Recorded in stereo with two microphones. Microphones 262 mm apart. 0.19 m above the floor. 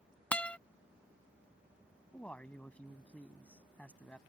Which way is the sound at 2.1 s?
5° left (ahead or behind).